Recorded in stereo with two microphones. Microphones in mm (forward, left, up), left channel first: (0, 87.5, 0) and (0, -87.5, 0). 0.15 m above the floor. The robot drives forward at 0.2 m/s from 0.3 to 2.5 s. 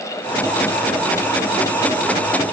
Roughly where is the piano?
I don't hear a piano.